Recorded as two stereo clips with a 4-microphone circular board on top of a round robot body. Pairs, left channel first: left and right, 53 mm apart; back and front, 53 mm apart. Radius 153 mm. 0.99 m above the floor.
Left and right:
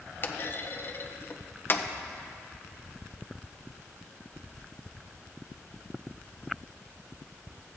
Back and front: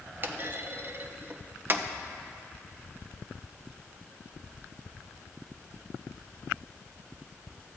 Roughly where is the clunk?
Ahead left.